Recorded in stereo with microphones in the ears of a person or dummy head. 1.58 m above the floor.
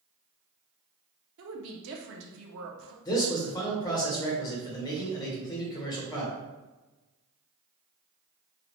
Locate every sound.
1.4 s a woman speaking: 70° right (ahead or behind), 0.9 m
3.0 s a man speaking: 20° left (ahead or behind), 1.5 m